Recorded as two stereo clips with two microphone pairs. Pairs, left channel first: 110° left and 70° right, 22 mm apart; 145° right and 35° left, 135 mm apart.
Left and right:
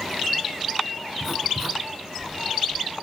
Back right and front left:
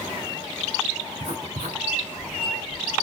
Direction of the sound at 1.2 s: Straight ahead.